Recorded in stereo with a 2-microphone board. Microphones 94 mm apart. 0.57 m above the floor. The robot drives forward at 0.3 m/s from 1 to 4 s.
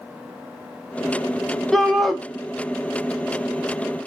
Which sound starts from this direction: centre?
A shout, at 1.7 s.